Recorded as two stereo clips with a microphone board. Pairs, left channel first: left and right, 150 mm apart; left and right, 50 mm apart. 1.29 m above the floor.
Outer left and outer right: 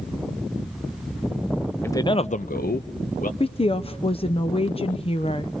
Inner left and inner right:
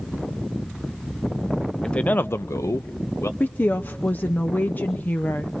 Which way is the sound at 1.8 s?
15° left (ahead or behind).